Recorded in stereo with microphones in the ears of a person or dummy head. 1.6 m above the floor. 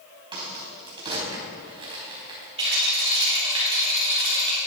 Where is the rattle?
30° right (ahead or behind), 4.5 m.